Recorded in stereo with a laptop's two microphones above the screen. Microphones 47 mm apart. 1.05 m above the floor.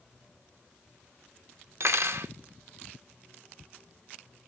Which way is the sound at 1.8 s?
65° right (ahead or behind).